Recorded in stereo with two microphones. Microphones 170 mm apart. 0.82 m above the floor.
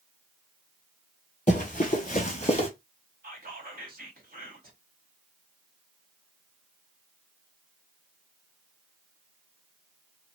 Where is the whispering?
55° right (ahead or behind), 1.0 m.